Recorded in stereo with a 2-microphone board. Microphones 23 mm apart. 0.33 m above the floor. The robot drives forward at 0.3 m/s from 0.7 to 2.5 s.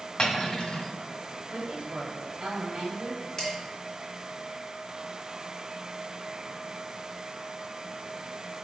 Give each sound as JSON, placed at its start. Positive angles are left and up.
{"t": 0.2, "sound": "cutlery clinking", "side_deg": 35, "distance_m": 1.4}
{"t": 1.5, "sound": "a woman speaking", "side_deg": -40, "distance_m": 1.8}
{"t": 3.4, "sound": "dishes clattering", "side_deg": 20, "distance_m": 2.5}